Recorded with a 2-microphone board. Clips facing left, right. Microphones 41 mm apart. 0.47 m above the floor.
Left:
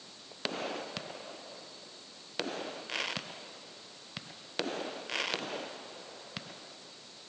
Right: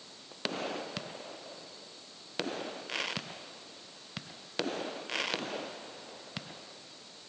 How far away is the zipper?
I don't hear a zipper.